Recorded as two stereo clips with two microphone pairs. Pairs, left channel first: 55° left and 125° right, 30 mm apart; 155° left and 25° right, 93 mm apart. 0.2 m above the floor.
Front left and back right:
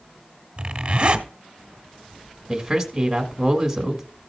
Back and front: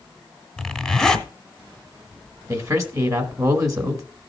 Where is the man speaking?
55° right, 1.6 m.